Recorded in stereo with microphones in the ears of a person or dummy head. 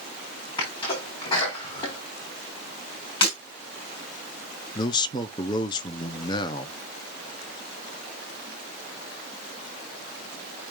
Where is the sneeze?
25° left (ahead or behind), 4 m.